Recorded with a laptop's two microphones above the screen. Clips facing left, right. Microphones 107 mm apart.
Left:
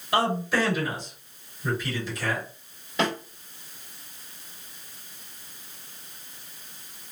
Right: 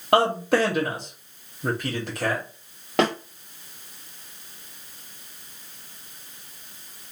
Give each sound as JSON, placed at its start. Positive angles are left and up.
{"t": 0.1, "sound": "a man speaking", "side_deg": -55, "distance_m": 1.6}
{"t": 3.0, "sound": "a snare drum", "side_deg": -75, "distance_m": 1.8}